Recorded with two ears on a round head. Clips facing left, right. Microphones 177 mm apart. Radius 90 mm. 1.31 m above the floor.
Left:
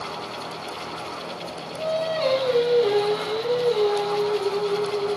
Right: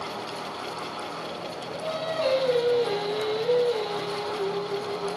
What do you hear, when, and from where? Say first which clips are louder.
1.8 s singing: left 4 dB; 55° left (ahead or behind), 1.7 m